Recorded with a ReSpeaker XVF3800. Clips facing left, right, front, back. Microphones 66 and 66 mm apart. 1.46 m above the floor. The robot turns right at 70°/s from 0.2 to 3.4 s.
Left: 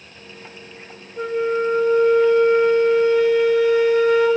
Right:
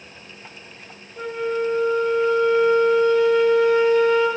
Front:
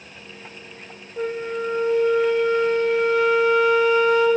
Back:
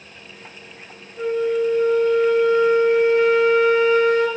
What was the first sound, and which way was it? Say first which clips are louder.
A flute: left 3 dB, back 6 dB; straight ahead.